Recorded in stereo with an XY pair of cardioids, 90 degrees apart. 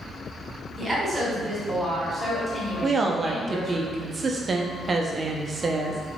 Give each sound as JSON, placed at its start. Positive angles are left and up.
{"t": 0.8, "sound": "a woman speaking", "azimuth_deg": -20, "distance_m": 1.5}
{"t": 2.8, "sound": "a woman speaking", "azimuth_deg": -40, "distance_m": 0.6}